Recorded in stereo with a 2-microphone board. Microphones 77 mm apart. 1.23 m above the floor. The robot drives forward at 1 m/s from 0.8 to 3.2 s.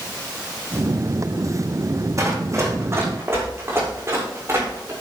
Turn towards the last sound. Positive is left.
turn(degrees=-35)  # may be behind; listen again after turning